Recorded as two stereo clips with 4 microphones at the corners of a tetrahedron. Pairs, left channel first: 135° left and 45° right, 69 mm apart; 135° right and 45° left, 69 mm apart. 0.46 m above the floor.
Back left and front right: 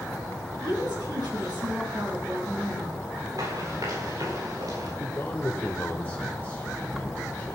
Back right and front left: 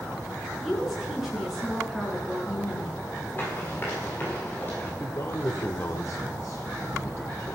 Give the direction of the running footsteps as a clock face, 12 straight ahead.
2 o'clock.